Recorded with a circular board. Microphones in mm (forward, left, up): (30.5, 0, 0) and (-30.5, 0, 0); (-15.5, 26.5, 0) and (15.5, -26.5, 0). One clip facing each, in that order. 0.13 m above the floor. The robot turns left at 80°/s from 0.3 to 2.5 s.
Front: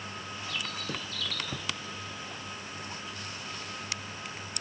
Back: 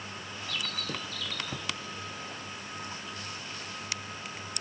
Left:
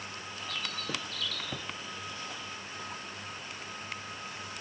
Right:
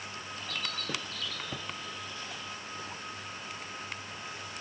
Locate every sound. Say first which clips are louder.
0.5 s a bird: back 1 dB, even; 40° right, 1.3 m; by 1.7 s 135° right, 1.3 m